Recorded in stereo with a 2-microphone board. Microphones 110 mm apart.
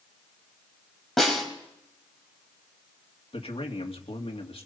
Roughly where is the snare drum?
Centre.